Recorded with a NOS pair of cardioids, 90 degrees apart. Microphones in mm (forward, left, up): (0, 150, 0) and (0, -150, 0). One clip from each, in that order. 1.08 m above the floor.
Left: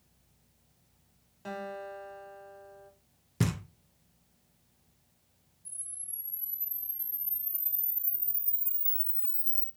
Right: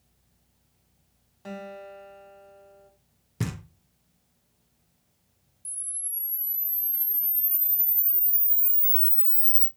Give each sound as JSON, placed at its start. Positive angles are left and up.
{"t": 1.4, "sound": "a guitar", "azimuth_deg": 0, "distance_m": 1.0}
{"t": 3.4, "sound": "knocking", "azimuth_deg": 10, "distance_m": 0.6}
{"t": 5.7, "sound": "a camera shutter", "azimuth_deg": -60, "distance_m": 0.6}